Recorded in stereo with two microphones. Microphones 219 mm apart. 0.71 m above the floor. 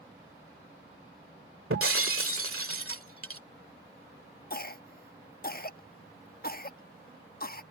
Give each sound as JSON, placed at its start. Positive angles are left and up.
{"t": 1.7, "sound": "breaking glass", "side_deg": -85}
{"t": 4.5, "sound": "a cough", "side_deg": 45}